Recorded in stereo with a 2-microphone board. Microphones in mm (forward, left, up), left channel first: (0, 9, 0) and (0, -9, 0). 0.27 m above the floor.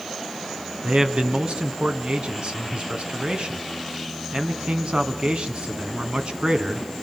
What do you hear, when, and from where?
0.8 s a man speaking: 60° right (ahead or behind), 2.5 m